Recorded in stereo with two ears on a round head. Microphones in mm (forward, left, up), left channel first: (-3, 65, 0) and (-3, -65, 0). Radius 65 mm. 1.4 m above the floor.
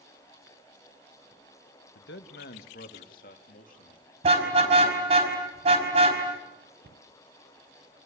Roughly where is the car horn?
Right.